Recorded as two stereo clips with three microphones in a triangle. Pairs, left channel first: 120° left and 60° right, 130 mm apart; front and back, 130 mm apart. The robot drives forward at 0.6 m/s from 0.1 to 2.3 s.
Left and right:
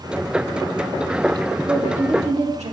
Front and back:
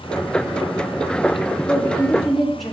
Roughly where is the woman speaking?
Right.